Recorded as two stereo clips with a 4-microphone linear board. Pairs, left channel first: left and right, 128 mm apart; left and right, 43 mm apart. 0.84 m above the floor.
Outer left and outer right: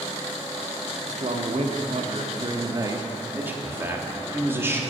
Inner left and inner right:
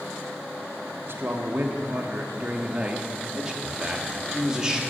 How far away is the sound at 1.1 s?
About 1.7 m.